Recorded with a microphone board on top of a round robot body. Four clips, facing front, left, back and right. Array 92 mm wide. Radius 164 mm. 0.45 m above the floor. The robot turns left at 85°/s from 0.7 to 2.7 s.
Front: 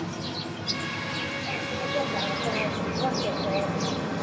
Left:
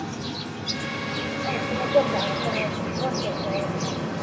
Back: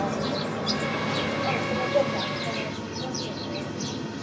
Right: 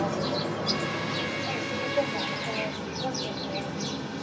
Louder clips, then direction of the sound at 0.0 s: Right 4 dB, back 6 dB; 140° right.